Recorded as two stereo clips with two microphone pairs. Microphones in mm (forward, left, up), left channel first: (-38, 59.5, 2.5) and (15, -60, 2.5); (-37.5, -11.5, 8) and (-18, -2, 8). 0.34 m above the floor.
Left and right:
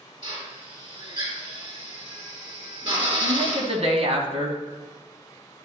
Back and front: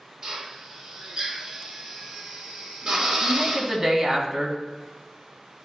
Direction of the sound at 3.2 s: 35° right.